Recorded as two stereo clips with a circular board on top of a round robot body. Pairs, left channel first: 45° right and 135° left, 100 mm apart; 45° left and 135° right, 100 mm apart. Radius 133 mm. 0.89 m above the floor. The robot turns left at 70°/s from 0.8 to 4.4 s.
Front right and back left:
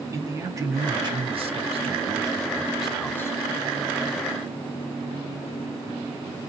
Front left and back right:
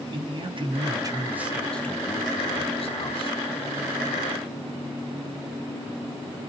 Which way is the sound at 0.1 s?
170° right.